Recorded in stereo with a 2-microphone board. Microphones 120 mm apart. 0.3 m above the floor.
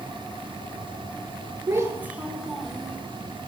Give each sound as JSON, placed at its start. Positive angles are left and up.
{"t": 1.7, "sound": "a child speaking", "side_deg": -30, "distance_m": 0.7}